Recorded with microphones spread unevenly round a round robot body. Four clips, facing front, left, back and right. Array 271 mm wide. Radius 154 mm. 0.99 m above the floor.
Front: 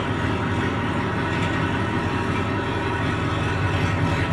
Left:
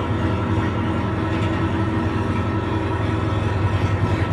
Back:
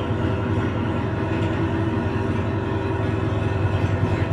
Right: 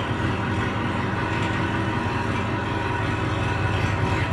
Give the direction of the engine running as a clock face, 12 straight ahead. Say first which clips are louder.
Left 3 dB, even; 8 o'clock.